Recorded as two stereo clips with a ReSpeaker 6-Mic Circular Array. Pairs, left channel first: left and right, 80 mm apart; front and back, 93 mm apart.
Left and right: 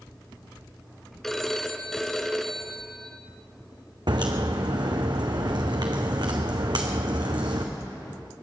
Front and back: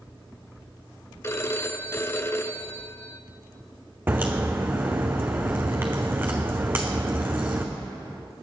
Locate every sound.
1.2 s a phone ringing: 10° left, 0.7 m
4.1 s a crack: 115° right, 1.7 m